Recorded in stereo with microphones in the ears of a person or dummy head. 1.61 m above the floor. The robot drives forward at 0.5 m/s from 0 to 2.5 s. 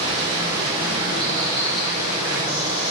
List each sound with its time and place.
0.0 s running water: 30° right (ahead or behind), 3 m; by 2.9 s 20° right (ahead or behind), 4 m